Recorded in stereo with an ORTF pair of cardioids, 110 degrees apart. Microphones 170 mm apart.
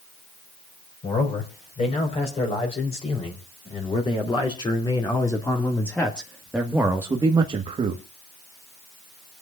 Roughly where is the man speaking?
Ahead left.